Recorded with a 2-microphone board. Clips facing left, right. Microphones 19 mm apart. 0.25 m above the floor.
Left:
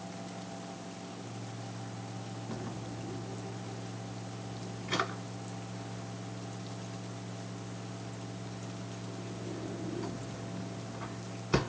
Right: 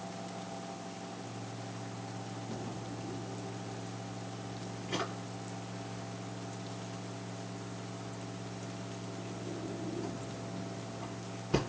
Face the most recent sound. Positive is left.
turn(degrees=60)  # may be behind; listen again after turning